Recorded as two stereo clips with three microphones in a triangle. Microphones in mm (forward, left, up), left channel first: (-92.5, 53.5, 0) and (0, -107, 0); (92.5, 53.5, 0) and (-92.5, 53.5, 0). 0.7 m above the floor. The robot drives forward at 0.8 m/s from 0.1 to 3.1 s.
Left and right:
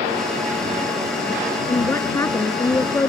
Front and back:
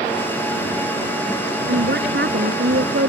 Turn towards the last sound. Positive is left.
turn(degrees=-165)